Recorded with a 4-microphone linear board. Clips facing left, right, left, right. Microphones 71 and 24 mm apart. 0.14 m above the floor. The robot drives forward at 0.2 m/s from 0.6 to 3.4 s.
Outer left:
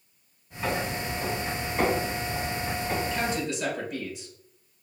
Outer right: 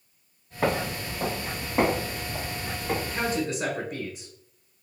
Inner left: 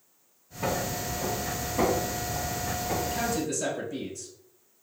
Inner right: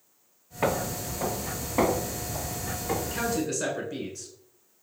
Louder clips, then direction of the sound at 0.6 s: Outer right 3 dB, inner right 2 dB; 60° right (ahead or behind).